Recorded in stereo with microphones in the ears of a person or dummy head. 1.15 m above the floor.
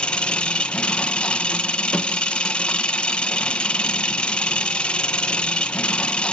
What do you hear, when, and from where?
0.0 s an engine running: 5° left (ahead or behind), 0.9 m